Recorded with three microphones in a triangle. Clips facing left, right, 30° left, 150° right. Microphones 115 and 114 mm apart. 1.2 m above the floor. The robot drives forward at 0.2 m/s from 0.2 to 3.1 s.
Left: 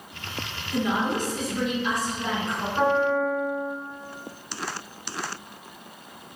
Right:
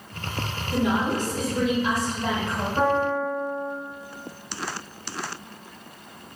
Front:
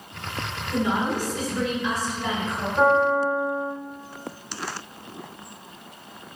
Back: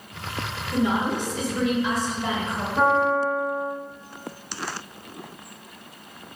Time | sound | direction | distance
0.7 | a woman speaking | 80° right | 1.4 m
2.8 | a piano | 150° right | 2.0 m